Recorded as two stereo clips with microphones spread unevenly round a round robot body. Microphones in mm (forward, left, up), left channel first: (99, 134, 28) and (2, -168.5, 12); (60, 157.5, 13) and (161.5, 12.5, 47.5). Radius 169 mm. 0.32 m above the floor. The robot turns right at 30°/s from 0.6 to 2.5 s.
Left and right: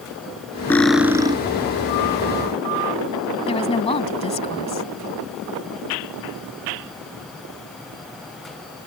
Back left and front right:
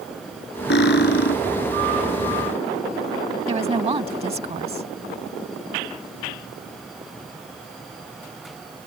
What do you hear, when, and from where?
0.7 s cutlery clinking: 155° left; by 1.4 s 175° left
3.5 s a woman speaking: straight ahead